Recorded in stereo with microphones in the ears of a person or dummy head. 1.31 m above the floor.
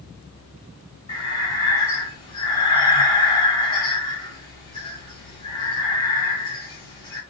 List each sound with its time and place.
1.1 s breathing: 20° left (ahead or behind), 1.5 m